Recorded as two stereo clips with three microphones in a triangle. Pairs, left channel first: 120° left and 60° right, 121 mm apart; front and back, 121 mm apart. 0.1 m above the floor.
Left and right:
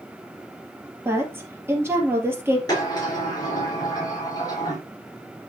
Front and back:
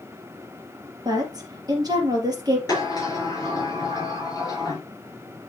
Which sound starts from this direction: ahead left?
A sliding door, at 2.7 s.